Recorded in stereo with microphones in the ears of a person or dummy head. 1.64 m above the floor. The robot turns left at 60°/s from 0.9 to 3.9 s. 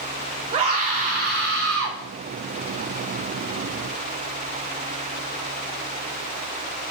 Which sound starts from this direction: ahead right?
A scream, at 0.5 s.